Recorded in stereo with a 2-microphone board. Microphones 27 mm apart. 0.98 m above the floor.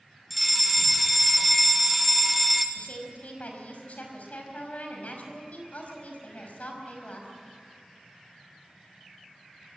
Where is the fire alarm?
Centre (ahead or behind), 1.7 m.